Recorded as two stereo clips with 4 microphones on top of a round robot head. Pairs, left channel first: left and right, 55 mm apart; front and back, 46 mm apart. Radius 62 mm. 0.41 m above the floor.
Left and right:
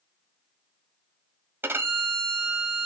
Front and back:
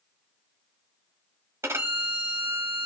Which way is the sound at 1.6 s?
140° right.